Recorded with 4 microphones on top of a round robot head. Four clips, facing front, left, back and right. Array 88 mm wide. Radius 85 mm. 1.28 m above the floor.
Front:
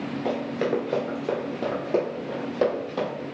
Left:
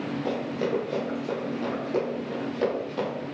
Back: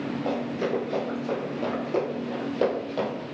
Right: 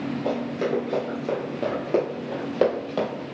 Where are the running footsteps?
5° left, 1.5 m; by 3.1 s 85° right, 1.9 m.